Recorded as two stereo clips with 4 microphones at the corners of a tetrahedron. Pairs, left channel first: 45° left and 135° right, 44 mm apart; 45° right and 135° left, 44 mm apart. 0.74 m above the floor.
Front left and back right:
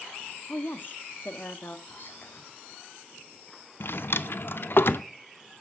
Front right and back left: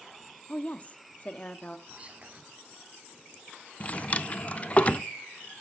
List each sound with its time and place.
0.5 s a woman speaking: 10° left, 1.1 m
1.9 s whispering: 75° left, 1.5 m
3.8 s a drawer: 10° left, 0.5 m